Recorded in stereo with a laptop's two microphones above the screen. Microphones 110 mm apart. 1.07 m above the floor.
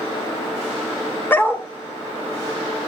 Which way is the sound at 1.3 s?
20° left (ahead or behind).